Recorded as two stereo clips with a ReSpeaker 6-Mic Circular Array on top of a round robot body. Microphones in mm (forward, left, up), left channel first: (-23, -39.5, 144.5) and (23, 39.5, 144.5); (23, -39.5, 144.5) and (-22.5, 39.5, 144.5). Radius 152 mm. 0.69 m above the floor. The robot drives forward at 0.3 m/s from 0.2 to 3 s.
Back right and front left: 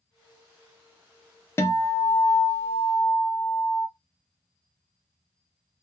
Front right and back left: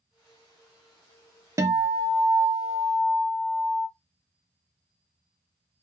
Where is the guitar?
175° left, 0.6 m; by 3.9 s straight behind, 1.0 m.